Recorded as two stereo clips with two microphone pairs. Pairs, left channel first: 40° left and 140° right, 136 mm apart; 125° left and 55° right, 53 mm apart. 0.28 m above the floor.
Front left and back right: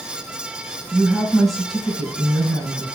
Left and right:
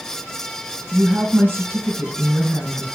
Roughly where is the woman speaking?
Ahead right.